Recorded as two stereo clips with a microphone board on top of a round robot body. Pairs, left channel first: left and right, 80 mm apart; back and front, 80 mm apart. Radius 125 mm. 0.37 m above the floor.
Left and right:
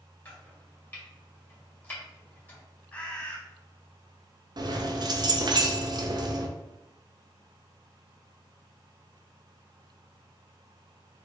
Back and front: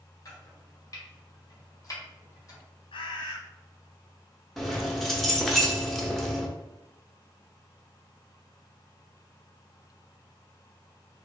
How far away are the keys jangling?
About 0.9 m.